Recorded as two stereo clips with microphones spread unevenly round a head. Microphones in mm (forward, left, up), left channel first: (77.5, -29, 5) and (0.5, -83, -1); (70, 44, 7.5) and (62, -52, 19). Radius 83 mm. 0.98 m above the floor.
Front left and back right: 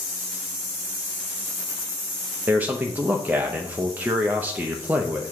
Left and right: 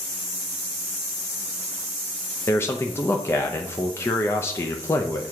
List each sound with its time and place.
2.5 s a man speaking: 145° left, 0.6 m